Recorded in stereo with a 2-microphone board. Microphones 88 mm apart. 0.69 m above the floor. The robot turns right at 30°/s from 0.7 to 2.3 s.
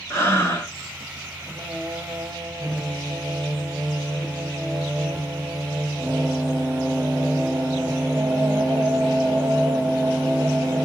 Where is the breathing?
25° left (ahead or behind), 0.9 m.